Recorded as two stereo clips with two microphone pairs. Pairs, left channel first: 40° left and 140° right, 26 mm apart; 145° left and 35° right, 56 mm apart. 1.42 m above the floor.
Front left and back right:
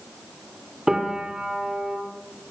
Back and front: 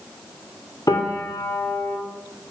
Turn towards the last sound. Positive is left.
turn(degrees=155)